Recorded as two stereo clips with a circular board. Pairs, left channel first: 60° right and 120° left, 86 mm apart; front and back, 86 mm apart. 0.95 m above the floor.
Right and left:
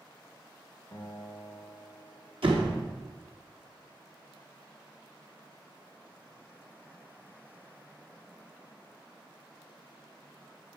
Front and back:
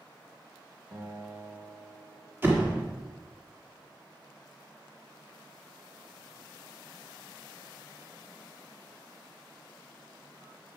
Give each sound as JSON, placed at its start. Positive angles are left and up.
{"t": 0.9, "sound": "a guitar", "azimuth_deg": -120, "distance_m": 1.3}
{"t": 2.4, "sound": "a door slam", "azimuth_deg": 115, "distance_m": 1.4}